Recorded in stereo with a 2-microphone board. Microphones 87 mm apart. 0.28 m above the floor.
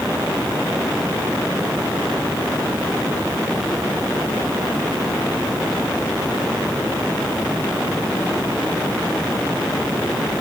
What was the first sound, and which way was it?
Only background noise.